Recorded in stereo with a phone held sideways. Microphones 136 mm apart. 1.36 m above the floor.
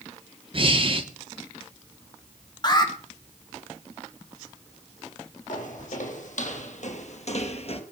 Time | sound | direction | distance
0.5 | breathing | 40° right (ahead or behind) | 1.8 m
2.6 | an alarm | 35° left (ahead or behind) | 4 m
5.5 | footsteps | 70° left (ahead or behind) | 4.5 m